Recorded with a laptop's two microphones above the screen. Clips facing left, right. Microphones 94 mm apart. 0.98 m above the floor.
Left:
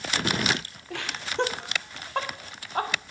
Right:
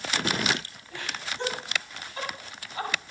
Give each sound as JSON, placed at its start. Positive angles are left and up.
{"t": 0.9, "sound": "laughter", "side_deg": 75, "distance_m": 3.5}